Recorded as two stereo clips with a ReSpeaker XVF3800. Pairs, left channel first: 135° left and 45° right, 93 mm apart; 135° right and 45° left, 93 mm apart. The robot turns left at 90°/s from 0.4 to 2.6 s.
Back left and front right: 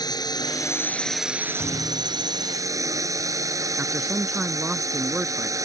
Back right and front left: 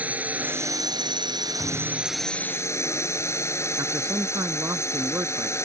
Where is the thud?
170° left; by 2.5 s 95° left.